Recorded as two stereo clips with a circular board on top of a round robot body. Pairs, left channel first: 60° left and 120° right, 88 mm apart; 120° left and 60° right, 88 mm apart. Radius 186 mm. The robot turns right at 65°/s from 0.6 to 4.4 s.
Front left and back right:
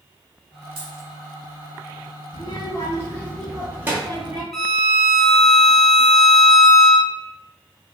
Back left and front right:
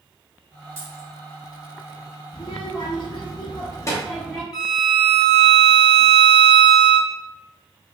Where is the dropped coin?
130° right, 1.1 m; by 1.1 s 110° right, 1.1 m.